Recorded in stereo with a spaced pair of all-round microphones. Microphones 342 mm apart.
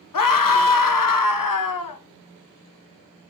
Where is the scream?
70° left (ahead or behind), 0.6 m.